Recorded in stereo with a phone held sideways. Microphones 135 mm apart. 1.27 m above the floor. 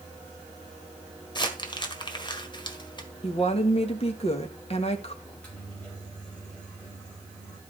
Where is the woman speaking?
50° left (ahead or behind), 1.5 m.